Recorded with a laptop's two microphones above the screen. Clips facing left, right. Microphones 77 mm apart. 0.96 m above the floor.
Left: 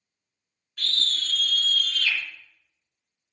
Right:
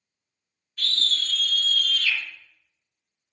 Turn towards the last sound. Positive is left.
turn(degrees=70)  # may be behind; listen again after turning